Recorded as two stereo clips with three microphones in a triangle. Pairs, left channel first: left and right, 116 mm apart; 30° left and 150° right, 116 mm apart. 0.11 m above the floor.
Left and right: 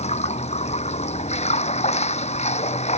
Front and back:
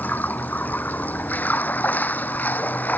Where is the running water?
105° left.